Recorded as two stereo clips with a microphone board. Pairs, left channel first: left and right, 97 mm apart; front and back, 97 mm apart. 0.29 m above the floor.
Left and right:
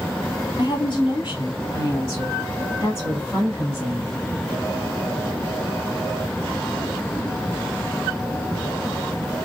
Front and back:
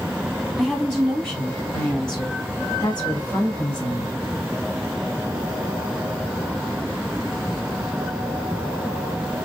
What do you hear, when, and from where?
0.6 s a woman speaking: 70° left, 1.2 m; by 4.1 s 30° left, 2.5 m